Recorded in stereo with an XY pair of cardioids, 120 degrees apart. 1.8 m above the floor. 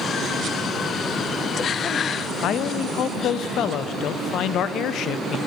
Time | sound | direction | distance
2.4 | a man speaking | 65° left | 0.5 m